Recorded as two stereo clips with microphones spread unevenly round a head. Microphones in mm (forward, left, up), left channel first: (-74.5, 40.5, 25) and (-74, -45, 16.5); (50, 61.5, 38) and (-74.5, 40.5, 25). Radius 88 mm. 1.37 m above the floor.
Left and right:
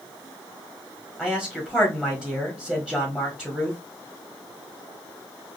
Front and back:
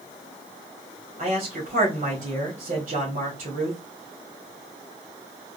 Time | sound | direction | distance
1.2 | a man speaking | 170° left | 1.5 m